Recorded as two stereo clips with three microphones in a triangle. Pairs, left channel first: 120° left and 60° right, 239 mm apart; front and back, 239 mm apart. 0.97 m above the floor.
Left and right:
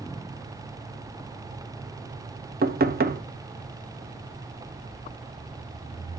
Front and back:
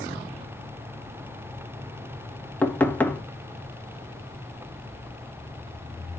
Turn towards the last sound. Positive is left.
turn(degrees=-80)